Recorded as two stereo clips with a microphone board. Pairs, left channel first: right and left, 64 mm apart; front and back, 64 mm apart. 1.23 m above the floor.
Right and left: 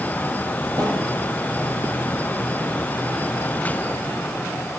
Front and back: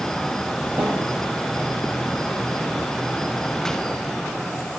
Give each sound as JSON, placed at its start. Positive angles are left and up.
{"t": 0.8, "sound": "a snare drum", "azimuth_deg": 110, "distance_m": 8.5}